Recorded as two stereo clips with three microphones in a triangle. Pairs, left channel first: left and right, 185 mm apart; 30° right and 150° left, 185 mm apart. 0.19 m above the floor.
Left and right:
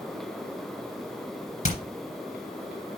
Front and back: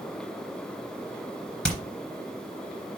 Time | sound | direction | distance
1.6 | hammering | 55° left | 2.5 m